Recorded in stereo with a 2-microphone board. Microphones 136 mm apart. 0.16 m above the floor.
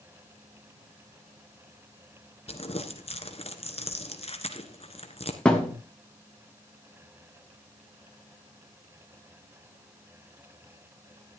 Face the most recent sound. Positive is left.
turn(degrees=5)  # may be behind; listen again after turning